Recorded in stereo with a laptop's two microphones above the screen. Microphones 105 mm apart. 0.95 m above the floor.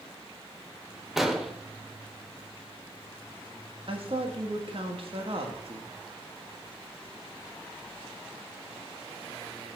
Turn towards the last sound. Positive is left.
turn(degrees=-60)  # may be behind; listen again after turning